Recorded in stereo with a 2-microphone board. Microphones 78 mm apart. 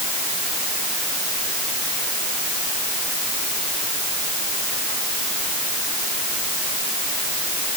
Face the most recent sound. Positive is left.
No sound to turn to.